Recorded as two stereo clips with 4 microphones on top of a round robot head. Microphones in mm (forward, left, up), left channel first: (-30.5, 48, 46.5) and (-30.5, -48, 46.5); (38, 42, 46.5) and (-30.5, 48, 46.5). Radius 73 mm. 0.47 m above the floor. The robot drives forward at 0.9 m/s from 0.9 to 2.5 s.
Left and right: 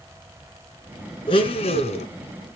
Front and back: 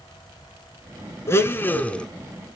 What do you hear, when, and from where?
1.3 s a blender: 45° left, 1.5 m; by 2.1 s 75° left, 1.1 m